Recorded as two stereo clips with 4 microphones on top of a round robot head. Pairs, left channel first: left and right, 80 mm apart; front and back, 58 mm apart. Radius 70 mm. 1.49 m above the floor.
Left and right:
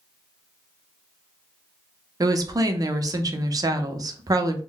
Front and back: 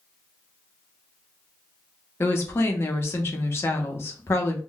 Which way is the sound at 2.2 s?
45° right.